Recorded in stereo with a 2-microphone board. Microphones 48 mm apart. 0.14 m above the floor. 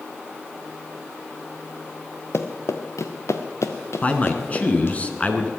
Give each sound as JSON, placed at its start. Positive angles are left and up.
{"t": 2.3, "sound": "running footsteps", "side_deg": 65, "distance_m": 1.2}
{"t": 4.0, "sound": "a man speaking", "side_deg": 30, "distance_m": 1.5}